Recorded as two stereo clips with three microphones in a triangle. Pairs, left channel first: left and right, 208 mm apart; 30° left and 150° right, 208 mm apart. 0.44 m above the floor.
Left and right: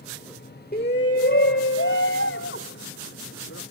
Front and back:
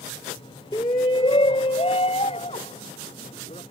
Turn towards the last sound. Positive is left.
turn(degrees=90)